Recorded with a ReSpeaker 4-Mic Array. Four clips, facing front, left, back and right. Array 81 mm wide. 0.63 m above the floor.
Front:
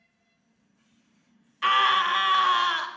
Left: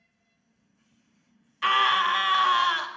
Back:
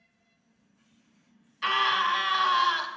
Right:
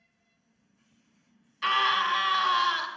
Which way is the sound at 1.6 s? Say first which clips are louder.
Left 3 dB, front 4 dB; 40° left.